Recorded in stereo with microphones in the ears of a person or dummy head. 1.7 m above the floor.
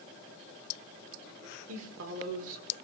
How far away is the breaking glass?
No breaking glass in this recording.